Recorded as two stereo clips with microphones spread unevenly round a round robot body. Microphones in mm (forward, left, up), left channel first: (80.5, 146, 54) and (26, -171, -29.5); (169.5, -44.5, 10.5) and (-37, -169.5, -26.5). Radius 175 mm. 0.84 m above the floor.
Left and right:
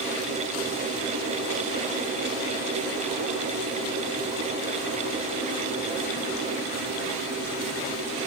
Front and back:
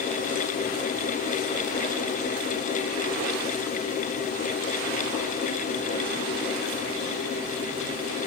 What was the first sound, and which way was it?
Only background noise.